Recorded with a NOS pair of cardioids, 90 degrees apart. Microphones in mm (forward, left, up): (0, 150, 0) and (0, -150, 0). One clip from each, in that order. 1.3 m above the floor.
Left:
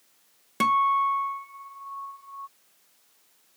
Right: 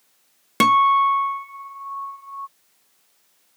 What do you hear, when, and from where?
0.6 s a guitar: 55° right